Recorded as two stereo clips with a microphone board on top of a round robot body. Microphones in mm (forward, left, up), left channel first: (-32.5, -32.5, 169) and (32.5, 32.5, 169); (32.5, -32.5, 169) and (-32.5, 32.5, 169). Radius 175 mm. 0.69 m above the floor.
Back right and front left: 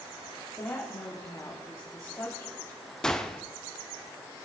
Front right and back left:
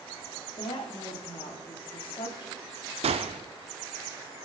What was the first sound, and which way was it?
A woman speaking, 75° right.